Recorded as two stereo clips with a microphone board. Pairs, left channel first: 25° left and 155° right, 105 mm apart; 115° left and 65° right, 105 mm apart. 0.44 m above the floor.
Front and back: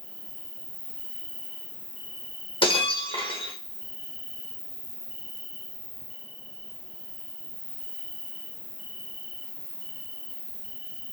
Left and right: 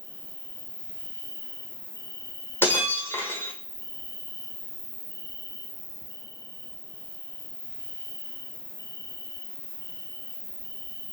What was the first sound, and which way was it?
An insect, 50° left.